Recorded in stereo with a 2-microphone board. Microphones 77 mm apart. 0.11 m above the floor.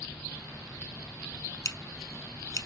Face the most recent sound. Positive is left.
turn(degrees=45)  # may be behind; listen again after turning